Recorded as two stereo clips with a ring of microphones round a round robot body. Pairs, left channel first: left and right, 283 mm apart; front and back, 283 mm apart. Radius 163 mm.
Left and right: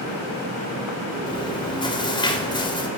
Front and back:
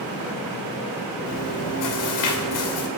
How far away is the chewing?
About 2.5 m.